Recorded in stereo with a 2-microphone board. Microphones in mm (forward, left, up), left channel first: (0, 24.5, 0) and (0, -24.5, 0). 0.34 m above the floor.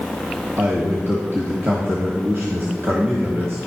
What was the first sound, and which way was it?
A man speaking, 55° right (ahead or behind).